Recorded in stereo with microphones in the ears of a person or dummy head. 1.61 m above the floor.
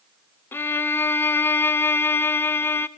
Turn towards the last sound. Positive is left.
turn(degrees=15)  # may be behind; listen again after turning